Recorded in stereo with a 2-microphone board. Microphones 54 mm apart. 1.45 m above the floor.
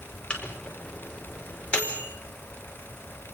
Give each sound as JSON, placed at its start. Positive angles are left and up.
{"t": 0.3, "sound": "a microwave", "side_deg": 20, "distance_m": 4.5}